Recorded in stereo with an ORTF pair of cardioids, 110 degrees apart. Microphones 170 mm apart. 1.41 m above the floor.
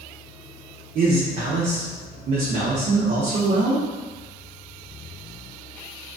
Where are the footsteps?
I don't hear footsteps.